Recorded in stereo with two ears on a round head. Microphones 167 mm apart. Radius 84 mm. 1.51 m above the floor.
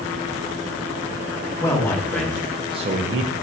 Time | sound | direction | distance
1.6 | a man speaking | 15° left (ahead or behind) | 1.2 m